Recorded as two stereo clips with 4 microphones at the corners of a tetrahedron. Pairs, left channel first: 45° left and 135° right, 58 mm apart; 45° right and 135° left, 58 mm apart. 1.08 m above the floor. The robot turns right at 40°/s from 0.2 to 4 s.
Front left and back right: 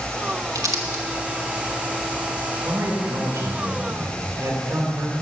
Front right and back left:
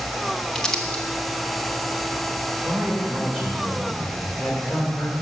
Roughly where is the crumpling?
Behind right.